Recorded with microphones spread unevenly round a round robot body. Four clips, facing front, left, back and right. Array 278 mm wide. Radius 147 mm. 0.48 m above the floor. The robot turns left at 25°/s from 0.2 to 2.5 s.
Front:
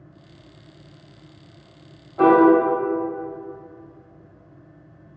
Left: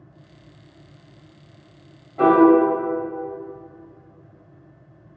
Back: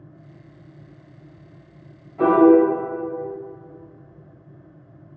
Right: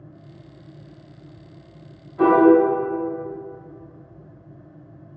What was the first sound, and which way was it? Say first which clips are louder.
A piano: left 1 dB, front 1 dB; 45° left.